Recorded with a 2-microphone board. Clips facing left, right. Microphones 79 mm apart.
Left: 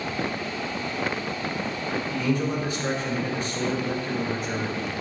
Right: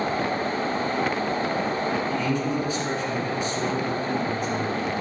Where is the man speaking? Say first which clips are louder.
Right 1 dB; 40° left (ahead or behind), 2.5 m.